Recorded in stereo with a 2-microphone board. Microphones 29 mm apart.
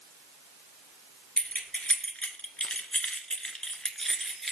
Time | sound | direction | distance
1.4 | keys jangling | 45° left (ahead or behind) | 1.6 m